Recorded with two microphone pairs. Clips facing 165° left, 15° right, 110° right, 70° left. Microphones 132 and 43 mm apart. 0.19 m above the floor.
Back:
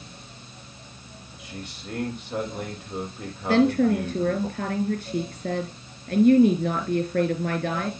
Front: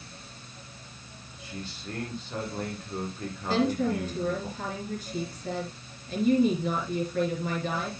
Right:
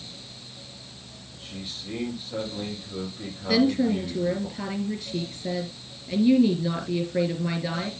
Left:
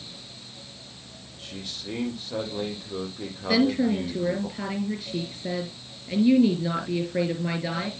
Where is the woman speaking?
145° left, 3.5 m.